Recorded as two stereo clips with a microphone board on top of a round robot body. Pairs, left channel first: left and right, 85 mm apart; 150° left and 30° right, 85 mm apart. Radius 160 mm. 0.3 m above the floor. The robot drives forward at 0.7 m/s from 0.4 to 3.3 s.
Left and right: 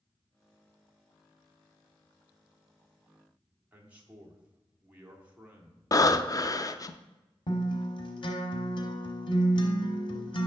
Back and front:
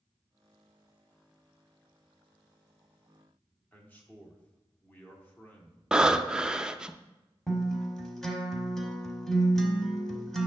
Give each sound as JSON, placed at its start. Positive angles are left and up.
{"t": 3.7, "sound": "a man speaking", "azimuth_deg": -155, "distance_m": 1.6}
{"t": 5.9, "sound": "breathing", "azimuth_deg": 50, "distance_m": 0.6}
{"t": 7.5, "sound": "a guitar", "azimuth_deg": 65, "distance_m": 1.1}